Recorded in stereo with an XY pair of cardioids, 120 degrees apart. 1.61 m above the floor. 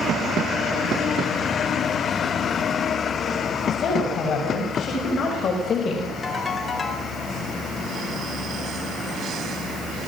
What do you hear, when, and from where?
3.7 s a woman speaking: 55° left, 8 m; by 6.1 s 40° left, 5 m
6.2 s a ringtone: 35° left, 3.5 m